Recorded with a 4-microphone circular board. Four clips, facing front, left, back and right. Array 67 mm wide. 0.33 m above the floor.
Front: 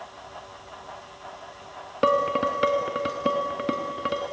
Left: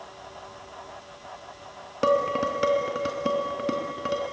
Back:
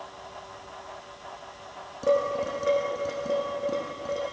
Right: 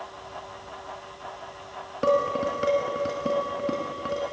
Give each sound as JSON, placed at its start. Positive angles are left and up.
{"t": 2.0, "sound": "dishes clattering", "azimuth_deg": 15, "distance_m": 2.5}